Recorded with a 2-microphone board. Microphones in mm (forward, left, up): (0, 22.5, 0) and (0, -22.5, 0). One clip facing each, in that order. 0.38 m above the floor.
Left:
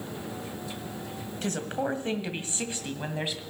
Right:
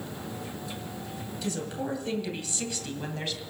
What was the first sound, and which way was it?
A woman speaking, 50° left (ahead or behind).